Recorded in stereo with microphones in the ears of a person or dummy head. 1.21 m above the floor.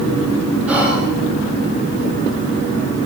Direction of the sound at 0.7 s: 10° right (ahead or behind).